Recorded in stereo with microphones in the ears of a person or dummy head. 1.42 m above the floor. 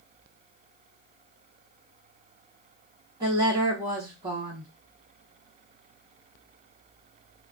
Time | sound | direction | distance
3.2 | a woman speaking | 30° right (ahead or behind) | 1.2 m